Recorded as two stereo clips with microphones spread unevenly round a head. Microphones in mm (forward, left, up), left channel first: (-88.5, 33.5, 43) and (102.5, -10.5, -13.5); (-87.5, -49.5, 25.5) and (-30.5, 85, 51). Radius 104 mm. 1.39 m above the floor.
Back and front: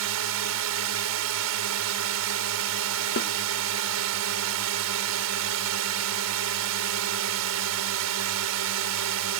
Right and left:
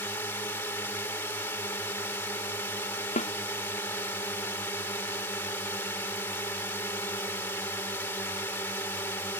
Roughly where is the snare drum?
Behind.